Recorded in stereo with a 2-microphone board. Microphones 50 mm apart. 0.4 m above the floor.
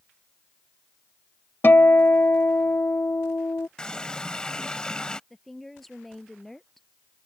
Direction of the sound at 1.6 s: 50° left (ahead or behind).